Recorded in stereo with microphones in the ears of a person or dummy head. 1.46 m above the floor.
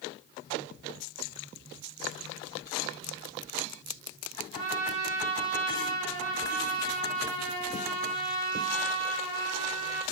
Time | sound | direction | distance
4.5 | a trumpet | 50° right (ahead or behind) | 2.5 m